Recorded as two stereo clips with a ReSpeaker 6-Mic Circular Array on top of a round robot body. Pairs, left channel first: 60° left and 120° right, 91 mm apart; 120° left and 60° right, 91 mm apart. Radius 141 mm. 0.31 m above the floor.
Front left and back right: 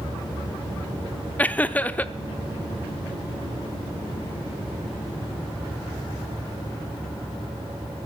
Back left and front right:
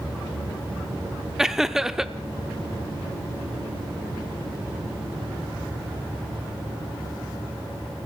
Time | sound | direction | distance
1.4 | laughter | 15° left | 0.9 m